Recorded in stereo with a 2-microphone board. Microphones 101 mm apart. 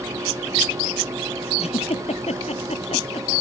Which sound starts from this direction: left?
A giggle, at 1.6 s.